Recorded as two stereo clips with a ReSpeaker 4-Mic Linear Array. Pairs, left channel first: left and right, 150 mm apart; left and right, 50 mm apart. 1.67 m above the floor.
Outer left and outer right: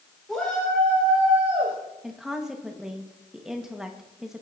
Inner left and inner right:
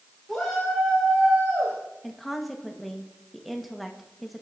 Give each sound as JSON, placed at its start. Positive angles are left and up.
{"t": 0.3, "sound": "a shout", "side_deg": 5, "distance_m": 3.0}
{"t": 2.0, "sound": "a woman speaking", "side_deg": -5, "distance_m": 1.5}